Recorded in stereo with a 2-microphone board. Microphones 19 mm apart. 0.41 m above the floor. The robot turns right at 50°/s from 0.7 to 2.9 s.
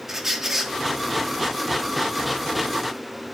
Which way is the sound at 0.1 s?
20° right (ahead or behind).